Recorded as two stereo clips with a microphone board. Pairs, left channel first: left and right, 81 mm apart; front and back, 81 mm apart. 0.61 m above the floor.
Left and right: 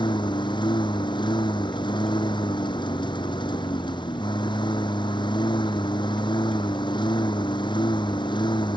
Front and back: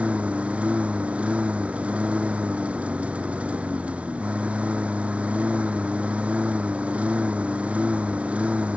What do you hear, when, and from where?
0.0 s a lawn mower: 105° left